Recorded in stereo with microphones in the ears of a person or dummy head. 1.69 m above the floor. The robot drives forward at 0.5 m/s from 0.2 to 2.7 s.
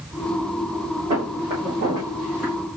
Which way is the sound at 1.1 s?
35° right (ahead or behind).